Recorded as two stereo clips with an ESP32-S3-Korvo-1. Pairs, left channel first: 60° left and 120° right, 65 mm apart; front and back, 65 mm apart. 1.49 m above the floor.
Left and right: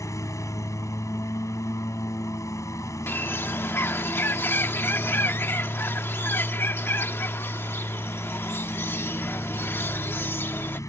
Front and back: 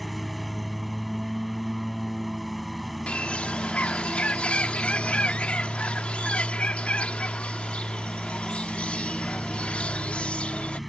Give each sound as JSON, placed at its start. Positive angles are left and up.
{"t": 0.0, "sound": "a lawn mower", "azimuth_deg": 90}
{"t": 3.1, "sound": "a bird", "azimuth_deg": 55}